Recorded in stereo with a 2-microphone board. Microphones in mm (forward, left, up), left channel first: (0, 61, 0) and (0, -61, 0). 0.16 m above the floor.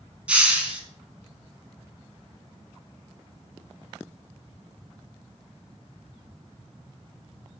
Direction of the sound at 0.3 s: 10° right (ahead or behind).